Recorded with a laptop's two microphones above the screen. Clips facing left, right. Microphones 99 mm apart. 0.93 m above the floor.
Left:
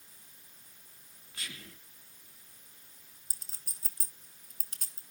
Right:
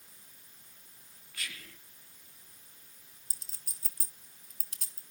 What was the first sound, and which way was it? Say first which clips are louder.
Whispering: right 1 dB; 25° left (ahead or behind).